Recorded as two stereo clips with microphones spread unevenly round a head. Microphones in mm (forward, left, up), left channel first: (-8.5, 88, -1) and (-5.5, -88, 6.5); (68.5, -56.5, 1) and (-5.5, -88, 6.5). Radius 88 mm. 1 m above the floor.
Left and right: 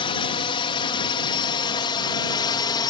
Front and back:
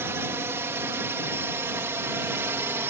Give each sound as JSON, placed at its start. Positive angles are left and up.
{"t": 0.0, "sound": "a drone", "azimuth_deg": 145}